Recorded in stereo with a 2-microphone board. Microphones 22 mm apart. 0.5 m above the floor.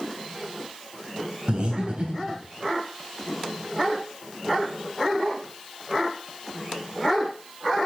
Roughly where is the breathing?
Right.